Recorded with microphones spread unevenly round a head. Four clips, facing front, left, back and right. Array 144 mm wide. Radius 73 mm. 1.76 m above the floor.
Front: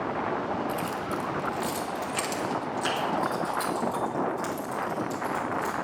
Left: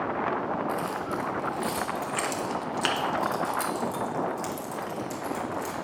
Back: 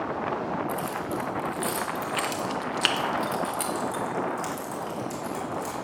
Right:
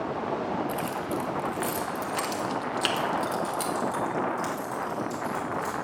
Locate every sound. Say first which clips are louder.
0.7 s keys jangling: even, even; 80° right, 1.3 m; by 5.7 s 125° left, 2.5 m